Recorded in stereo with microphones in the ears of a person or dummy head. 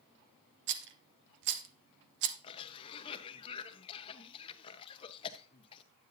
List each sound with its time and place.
0.7 s a rattle: 55° right (ahead or behind), 1.0 m
2.4 s a cough: 30° left (ahead or behind), 0.8 m